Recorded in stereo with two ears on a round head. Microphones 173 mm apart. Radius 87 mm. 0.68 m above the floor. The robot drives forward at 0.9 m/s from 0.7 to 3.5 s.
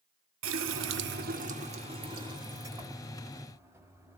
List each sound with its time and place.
0.4 s a running tap: 70° right (ahead or behind), 0.7 m; by 4.2 s 15° right (ahead or behind), 2.5 m